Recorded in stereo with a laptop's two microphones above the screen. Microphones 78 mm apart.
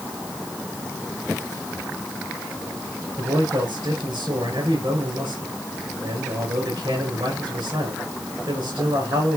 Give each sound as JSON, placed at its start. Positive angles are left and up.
{"t": 3.2, "sound": "a man speaking", "side_deg": -80, "distance_m": 5.0}